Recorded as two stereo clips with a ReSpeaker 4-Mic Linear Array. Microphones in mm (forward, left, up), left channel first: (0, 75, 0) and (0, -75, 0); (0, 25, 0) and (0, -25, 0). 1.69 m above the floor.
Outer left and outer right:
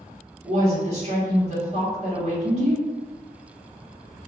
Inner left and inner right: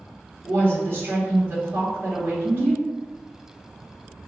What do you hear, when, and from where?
0.4 s a woman speaking: 50° right (ahead or behind), 1.5 m